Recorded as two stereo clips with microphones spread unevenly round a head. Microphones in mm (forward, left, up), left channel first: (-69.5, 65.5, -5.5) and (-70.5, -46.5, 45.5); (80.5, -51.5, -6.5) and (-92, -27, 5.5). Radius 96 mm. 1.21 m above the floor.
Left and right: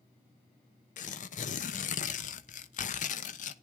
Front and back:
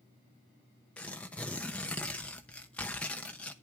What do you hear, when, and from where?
1.0 s tearing paper: 75° left, 0.8 m